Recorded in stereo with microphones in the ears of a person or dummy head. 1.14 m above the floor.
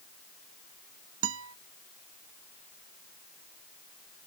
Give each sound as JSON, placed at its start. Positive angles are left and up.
{"t": 1.2, "sound": "a guitar", "side_deg": -80}